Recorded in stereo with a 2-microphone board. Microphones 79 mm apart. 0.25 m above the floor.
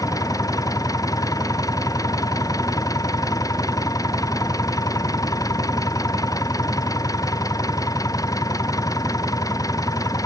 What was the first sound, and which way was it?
An engine running, 50° left (ahead or behind).